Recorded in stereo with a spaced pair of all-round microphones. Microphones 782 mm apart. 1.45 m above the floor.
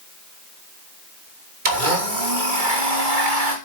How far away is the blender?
About 3 m.